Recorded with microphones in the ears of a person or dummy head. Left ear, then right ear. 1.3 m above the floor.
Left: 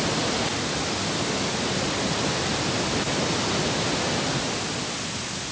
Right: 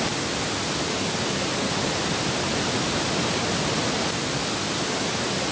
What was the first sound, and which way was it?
Only background noise.